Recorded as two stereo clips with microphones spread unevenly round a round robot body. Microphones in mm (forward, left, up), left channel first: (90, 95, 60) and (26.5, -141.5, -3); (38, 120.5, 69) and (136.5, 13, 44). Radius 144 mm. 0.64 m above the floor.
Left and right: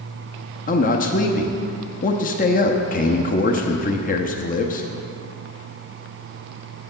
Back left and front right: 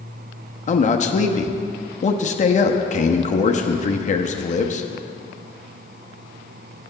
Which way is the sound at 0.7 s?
140° left.